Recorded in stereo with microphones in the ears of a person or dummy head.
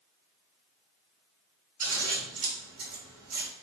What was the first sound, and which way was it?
Scissors, 80° right.